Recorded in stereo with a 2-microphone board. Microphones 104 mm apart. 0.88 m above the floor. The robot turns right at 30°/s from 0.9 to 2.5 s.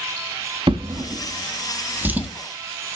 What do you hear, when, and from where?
0.7 s a drawer: 55° right (ahead or behind), 0.8 m; by 2.3 s 10° right (ahead or behind), 0.8 m